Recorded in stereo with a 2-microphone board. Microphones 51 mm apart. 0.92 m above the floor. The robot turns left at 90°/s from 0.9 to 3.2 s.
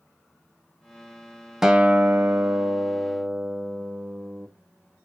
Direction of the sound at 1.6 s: 10° right.